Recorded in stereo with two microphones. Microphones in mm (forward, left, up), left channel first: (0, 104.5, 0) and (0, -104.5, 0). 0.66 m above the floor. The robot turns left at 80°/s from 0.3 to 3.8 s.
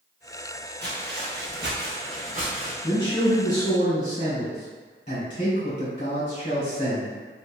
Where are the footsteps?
55° right (ahead or behind), 1.2 m; by 2.7 s 20° right (ahead or behind), 1.5 m.